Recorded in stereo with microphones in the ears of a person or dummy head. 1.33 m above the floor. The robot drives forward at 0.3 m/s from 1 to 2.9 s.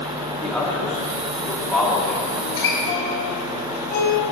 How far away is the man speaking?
About 2 m.